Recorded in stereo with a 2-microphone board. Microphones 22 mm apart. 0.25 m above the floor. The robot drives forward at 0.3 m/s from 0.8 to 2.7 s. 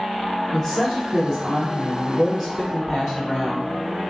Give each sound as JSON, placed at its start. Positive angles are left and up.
{"t": 0.5, "sound": "a woman speaking", "side_deg": 5, "distance_m": 1.4}